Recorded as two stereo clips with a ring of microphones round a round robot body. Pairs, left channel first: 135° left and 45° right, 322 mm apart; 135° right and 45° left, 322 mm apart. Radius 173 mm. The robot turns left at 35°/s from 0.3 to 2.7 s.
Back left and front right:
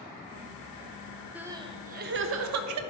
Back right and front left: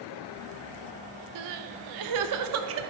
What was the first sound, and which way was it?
Crying, 40° left.